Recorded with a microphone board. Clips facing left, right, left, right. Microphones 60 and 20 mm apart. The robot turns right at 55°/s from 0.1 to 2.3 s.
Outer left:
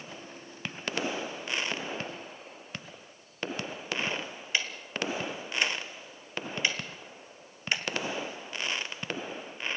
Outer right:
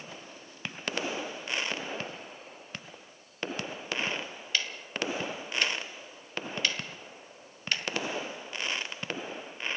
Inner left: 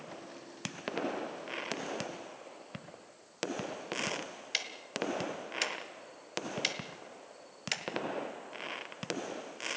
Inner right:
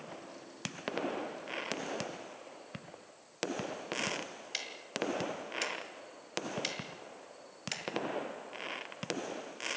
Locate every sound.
4.5 s ticking: 20° left (ahead or behind), 1.9 m